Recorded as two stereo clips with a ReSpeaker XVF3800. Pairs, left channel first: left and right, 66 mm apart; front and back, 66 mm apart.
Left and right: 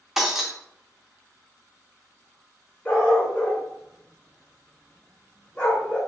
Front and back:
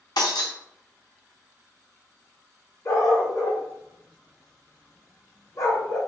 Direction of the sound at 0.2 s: 5° right.